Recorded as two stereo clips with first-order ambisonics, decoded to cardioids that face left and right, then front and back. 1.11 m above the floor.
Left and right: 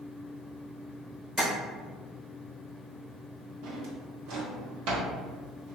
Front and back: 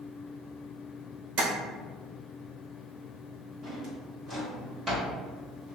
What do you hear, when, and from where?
1.4 s tapping: straight behind, 1.2 m
3.6 s a drawer: 110° right, 1.1 m